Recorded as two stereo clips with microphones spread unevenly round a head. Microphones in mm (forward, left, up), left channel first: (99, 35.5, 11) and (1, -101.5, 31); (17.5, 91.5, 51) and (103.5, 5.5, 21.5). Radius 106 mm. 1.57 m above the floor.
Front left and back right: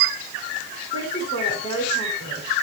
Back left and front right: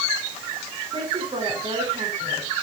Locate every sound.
0.9 s a man speaking: straight ahead, 7 m